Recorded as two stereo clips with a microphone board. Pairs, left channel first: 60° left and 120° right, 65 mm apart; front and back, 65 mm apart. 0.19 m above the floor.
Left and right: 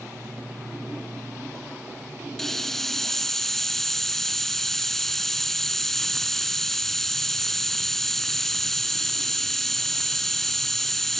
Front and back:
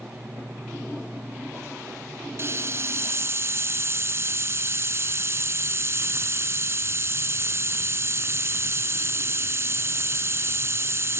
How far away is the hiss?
About 1.5 m.